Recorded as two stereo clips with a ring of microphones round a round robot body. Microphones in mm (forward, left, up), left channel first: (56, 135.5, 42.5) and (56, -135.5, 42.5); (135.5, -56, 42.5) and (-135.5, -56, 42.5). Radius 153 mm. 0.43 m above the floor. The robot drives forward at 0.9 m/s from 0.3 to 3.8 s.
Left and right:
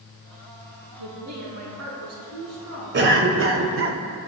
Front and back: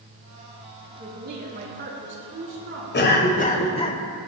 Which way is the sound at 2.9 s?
45° right.